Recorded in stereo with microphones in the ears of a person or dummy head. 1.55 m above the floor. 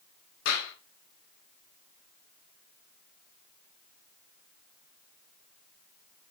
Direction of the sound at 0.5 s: 80° left.